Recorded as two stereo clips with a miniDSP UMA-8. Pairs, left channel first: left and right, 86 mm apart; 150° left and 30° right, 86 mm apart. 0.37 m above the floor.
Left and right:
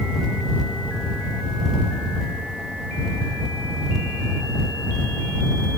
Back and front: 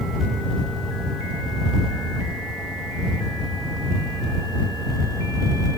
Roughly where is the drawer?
I don't hear a drawer.